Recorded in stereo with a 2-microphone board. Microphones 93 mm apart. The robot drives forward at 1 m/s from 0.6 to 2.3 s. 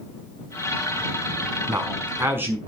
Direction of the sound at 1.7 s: 25° right (ahead or behind).